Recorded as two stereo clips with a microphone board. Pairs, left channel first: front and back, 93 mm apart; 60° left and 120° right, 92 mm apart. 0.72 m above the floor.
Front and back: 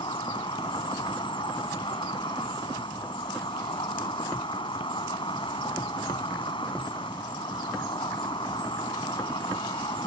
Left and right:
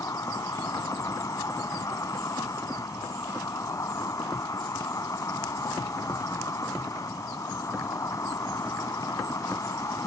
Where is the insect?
10° left.